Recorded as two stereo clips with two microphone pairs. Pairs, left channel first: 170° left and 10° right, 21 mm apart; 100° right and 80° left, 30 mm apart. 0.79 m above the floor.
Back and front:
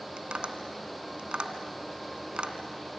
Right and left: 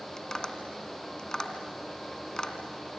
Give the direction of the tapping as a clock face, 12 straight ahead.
1 o'clock.